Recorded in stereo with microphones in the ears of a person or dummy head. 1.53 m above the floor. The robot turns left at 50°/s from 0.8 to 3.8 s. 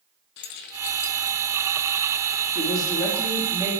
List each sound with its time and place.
0.4 s keys jangling: 55° left (ahead or behind), 1.1 m
2.5 s a woman speaking: 40° left, 3.5 m; by 3.7 s 20° right, 3.5 m